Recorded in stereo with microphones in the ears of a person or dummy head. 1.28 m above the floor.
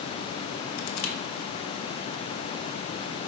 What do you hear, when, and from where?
0.8 s crushing: 80° left, 1.0 m